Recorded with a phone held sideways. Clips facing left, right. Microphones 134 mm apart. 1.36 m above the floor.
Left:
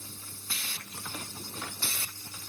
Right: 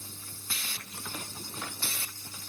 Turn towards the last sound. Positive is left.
No sound to turn to.